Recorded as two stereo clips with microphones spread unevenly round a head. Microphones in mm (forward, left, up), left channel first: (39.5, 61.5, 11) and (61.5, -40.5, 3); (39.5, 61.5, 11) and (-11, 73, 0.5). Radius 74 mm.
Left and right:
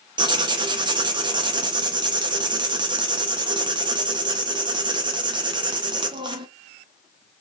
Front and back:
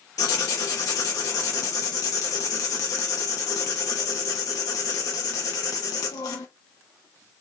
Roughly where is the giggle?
No giggle in this recording.